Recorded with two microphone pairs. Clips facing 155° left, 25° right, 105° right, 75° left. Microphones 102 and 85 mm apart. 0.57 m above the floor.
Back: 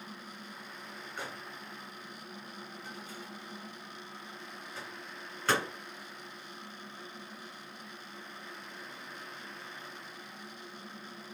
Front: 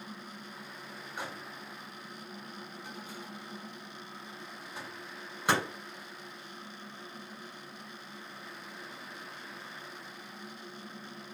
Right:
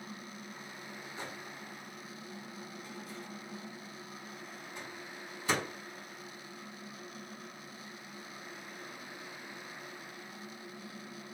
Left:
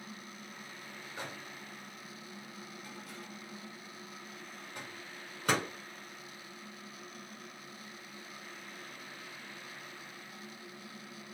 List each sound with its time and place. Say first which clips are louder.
1.2 s a microwave: front 2 dB, left 1 dB; 45° left, 2.5 m